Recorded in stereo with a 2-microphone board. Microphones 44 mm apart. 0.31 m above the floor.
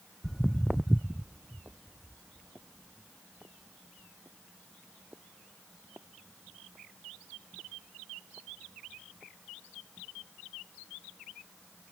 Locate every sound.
0.2 s footsteps: 15° left (ahead or behind); by 9.3 s 55° right (ahead or behind)